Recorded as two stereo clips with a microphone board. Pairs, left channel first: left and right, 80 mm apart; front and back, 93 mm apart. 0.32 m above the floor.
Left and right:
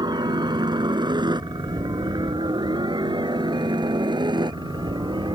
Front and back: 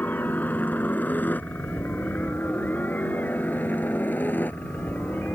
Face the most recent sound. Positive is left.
turn(degrees=-70)